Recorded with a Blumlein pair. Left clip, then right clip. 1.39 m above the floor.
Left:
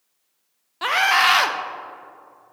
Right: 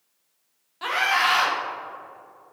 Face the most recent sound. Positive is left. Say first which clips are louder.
# left 4 dB
turn(degrees=20)